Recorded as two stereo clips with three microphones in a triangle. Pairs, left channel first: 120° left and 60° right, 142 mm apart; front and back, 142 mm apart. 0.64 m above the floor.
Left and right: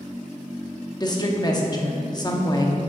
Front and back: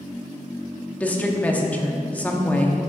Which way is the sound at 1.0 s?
75° left.